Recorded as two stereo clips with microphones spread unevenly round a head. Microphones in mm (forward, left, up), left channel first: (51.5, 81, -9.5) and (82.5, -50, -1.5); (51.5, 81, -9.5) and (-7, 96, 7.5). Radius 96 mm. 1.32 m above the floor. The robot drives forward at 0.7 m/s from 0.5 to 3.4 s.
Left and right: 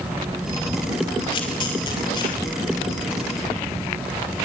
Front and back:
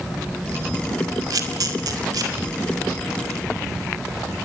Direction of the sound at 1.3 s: 170° left.